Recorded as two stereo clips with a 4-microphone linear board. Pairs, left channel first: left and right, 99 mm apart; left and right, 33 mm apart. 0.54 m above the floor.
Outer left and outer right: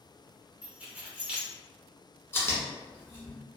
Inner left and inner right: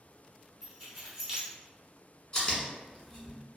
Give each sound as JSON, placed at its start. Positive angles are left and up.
{"t": 0.6, "sound": "keys jangling", "side_deg": -10, "distance_m": 0.8}
{"t": 2.3, "sound": "chewing", "side_deg": 25, "distance_m": 1.1}